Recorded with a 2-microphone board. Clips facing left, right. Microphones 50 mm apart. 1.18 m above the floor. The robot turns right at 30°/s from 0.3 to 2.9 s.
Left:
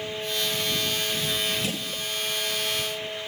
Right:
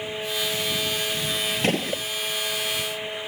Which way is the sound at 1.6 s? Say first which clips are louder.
Right 7 dB; 50° right (ahead or behind).